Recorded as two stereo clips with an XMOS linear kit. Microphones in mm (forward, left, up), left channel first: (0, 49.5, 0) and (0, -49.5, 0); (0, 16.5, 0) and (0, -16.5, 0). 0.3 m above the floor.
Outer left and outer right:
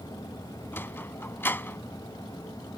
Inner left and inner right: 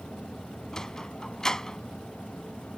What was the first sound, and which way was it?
A sliding door, 20° left (ahead or behind).